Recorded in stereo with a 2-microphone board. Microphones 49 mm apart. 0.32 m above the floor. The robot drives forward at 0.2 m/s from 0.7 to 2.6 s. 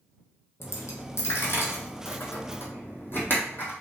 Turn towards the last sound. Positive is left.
turn(degrees=45)  # may be behind; listen again after turning